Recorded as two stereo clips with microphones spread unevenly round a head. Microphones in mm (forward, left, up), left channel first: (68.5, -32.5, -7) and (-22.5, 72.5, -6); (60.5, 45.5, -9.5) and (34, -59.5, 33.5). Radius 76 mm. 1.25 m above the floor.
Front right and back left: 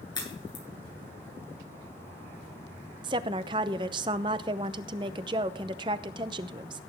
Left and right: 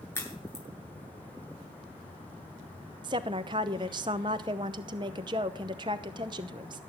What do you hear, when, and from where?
0.1 s a crack: 10° left, 10 m
3.0 s a woman speaking: 170° right, 0.7 m